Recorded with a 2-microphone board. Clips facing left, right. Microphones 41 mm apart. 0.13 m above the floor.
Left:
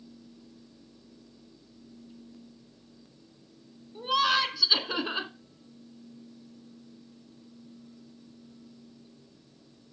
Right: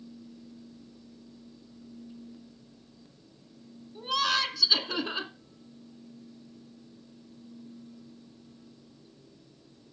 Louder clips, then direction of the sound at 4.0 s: Left 3 dB; 10° left (ahead or behind).